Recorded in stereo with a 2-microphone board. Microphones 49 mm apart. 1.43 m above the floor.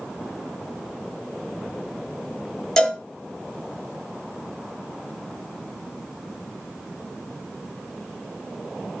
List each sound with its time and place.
2.8 s a cowbell: 10° left (ahead or behind), 4 m